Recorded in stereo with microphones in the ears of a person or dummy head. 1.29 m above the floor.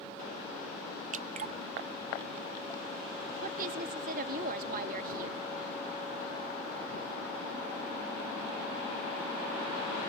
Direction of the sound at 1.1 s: 40° right (ahead or behind).